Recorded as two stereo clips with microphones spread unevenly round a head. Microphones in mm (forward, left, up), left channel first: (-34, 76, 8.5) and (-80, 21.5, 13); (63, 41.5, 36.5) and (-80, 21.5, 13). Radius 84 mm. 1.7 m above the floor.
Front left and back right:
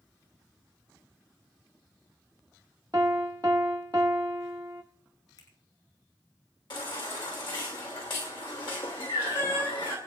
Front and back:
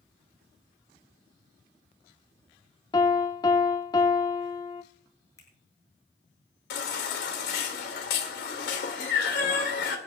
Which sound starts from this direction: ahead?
A baby crying, at 6.7 s.